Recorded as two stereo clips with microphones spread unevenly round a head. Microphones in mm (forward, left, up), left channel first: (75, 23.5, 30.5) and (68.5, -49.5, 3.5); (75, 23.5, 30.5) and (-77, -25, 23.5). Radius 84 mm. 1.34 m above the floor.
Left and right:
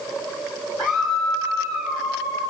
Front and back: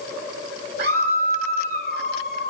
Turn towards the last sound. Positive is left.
turn(degrees=165)